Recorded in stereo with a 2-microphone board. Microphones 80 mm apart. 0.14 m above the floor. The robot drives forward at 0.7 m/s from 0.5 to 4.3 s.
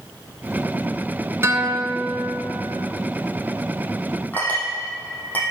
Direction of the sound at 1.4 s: 35° right (ahead or behind).